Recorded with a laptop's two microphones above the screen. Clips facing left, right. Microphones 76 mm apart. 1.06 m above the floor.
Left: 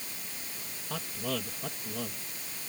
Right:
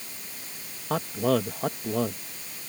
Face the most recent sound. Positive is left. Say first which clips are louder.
# right 11 dB
turn(degrees=-50)  # may be behind; listen again after turning